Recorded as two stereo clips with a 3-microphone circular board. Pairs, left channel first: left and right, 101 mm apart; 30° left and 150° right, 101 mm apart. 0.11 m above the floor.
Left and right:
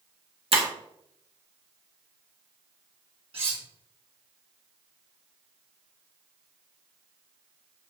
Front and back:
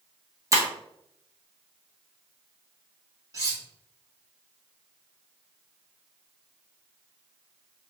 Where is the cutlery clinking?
95° right, 1.5 m.